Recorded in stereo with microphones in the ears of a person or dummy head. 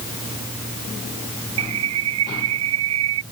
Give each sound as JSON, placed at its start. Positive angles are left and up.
{"t": 1.6, "sound": "a bird", "side_deg": -85}